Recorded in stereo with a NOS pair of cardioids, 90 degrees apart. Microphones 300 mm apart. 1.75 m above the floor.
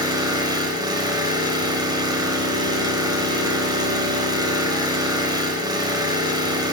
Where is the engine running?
15° right, 6.5 m.